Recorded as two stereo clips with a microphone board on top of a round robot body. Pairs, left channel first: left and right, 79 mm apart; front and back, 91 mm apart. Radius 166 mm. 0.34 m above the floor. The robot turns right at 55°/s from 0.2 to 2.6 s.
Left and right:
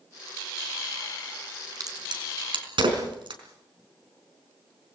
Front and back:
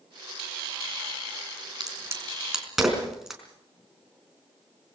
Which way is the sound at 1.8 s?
135° right.